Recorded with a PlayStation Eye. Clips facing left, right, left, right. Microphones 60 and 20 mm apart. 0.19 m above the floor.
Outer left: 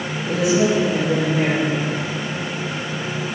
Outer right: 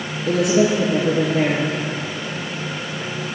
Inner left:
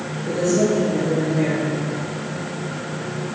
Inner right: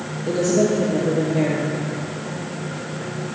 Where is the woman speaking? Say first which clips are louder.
Outer right 1 dB, inner right 1 dB; 60° right (ahead or behind), 4.5 m.